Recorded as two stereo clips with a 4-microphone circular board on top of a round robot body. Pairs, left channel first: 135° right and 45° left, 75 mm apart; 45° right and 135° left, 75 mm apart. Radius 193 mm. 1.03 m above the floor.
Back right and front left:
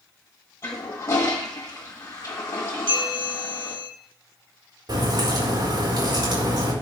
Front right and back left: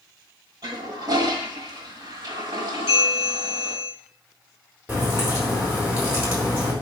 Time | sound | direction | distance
0.6 | a toilet flushing | 170° left | 1.2 m
2.9 | a bell | 50° left | 7 m
4.9 | a crack | 65° left | 6 m